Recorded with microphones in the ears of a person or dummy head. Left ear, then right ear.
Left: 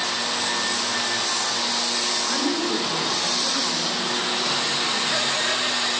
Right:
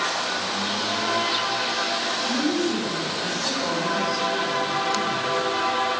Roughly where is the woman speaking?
Left.